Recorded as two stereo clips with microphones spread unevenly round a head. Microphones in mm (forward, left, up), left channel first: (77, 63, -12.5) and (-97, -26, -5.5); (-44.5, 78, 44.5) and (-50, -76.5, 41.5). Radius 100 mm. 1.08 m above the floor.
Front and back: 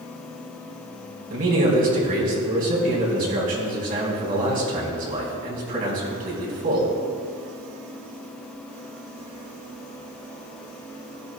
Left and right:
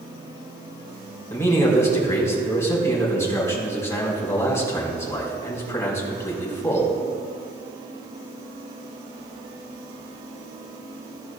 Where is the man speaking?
160° left, 4 m.